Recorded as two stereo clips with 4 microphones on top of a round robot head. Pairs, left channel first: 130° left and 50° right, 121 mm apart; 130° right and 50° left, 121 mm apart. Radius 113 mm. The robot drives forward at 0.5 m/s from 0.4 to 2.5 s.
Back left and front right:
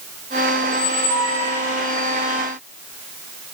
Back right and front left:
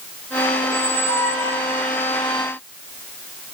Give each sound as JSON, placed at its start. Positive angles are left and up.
{"t": 0.6, "sound": "a squeak", "azimuth_deg": 170, "distance_m": 1.1}